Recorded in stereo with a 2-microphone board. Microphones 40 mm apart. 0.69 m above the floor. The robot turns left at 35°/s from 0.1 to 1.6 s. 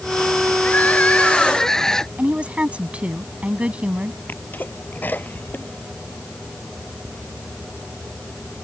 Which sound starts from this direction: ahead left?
Crying, at 0.6 s.